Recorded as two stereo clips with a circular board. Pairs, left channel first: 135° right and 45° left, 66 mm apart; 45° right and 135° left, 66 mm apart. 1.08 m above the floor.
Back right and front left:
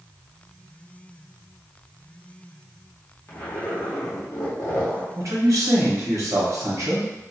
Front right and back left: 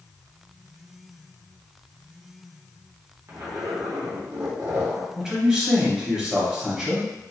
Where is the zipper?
Straight behind, 0.9 m.